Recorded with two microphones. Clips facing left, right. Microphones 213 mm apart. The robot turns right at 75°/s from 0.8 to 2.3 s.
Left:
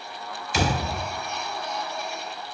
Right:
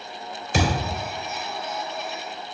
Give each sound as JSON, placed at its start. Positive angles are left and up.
{"t": 0.5, "sound": "a thud", "side_deg": -55, "distance_m": 3.0}